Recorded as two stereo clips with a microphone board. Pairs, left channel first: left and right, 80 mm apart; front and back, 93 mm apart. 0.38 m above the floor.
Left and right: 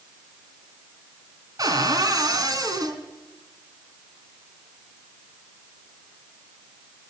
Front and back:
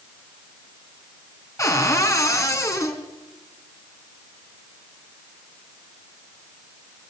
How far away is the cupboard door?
About 3 m.